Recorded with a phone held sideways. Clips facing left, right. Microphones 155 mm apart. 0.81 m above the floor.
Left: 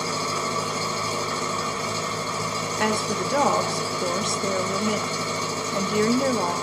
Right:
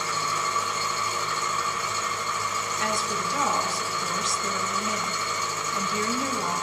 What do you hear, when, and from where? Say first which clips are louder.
0.0 s an engine running: left 3 dB; 35° left (ahead or behind), 0.8 m
2.8 s a woman speaking: left 6 dB; 60° left (ahead or behind), 1.1 m